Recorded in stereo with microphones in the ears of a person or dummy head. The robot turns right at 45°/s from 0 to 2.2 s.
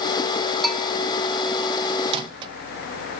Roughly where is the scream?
I don't hear a scream.